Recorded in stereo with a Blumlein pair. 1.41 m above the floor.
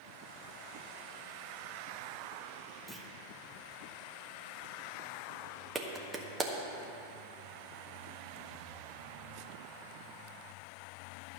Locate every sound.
2.9 s a clunk: 5° right, 1.2 m
5.8 s a clap: 15° right, 1.4 m